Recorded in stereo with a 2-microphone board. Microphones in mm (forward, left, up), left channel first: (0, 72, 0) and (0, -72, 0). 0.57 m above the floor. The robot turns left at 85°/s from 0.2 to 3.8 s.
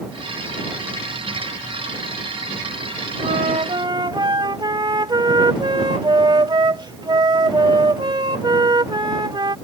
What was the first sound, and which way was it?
A flute, 95° right.